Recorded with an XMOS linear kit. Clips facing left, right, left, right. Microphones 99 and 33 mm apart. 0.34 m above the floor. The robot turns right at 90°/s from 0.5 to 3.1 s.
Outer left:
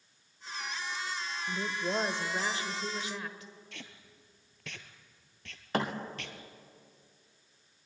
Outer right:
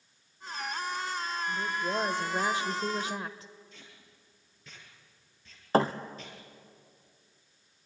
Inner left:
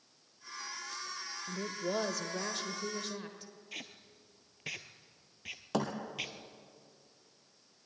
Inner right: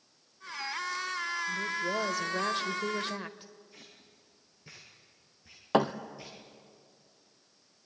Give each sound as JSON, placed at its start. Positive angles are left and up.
{"t": 1.5, "sound": "a woman speaking", "azimuth_deg": 130, "distance_m": 0.9}
{"t": 3.7, "sound": "tape being pulled", "side_deg": 65, "distance_m": 1.7}
{"t": 5.7, "sound": "a thud", "side_deg": -30, "distance_m": 1.4}